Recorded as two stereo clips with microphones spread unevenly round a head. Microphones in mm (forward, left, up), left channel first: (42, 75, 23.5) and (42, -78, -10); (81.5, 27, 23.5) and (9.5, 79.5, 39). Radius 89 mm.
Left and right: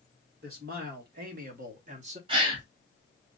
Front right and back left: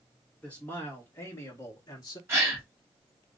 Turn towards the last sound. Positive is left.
turn(degrees=-145)